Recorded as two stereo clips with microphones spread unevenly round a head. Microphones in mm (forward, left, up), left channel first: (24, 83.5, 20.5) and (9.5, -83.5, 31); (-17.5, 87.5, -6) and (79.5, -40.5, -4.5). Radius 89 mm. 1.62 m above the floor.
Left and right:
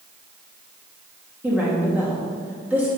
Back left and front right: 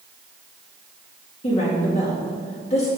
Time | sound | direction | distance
1.4 | a woman speaking | 175° right | 2 m